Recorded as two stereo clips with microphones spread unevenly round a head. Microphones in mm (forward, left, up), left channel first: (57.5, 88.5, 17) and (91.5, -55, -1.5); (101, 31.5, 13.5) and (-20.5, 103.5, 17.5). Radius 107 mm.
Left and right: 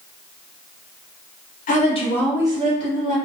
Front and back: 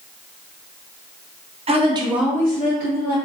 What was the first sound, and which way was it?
A woman speaking, 115° left.